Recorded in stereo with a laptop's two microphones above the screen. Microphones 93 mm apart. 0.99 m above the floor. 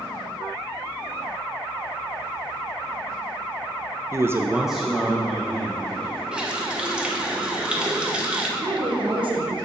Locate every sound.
4.1 s a man speaking: 30° right (ahead or behind), 0.6 m; by 6.2 s 15° left (ahead or behind), 2.5 m
6.3 s a running tap: 10° right (ahead or behind), 1.2 m
8.6 s a woman speaking: 60° right (ahead or behind), 1.2 m